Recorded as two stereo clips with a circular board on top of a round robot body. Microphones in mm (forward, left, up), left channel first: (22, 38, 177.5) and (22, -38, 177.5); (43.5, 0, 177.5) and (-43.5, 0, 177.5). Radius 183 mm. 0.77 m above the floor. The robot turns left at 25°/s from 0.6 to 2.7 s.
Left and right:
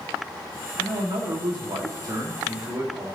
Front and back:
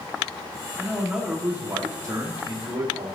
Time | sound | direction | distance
0.8 | a man speaking | 95° right | 1.8 m